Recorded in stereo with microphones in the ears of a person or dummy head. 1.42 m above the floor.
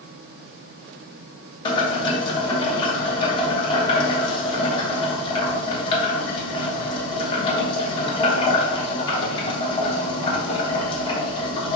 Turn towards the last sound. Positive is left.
turn(degrees=30)  # may be behind; listen again after turning